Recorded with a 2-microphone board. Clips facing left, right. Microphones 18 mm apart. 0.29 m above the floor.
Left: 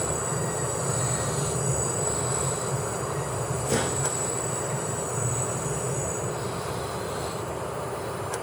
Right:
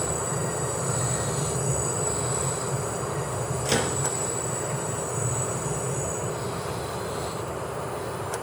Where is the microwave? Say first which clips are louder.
Right 2 dB; 65° right (ahead or behind), 4.5 m.